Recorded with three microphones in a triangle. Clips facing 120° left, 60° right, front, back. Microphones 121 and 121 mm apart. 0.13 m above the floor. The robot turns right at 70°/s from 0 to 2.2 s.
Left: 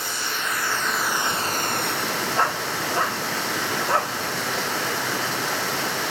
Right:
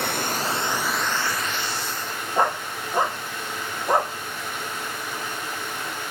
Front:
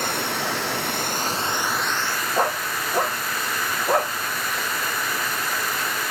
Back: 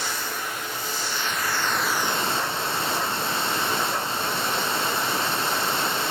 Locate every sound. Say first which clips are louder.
0.0 s running water: right 4 dB, front 5 dB; 35° right, 1.0 m; by 6.1 s 115° left, 1.0 m
2.4 s a dog barking: right 4 dB, front 4 dB; 10° left, 0.6 m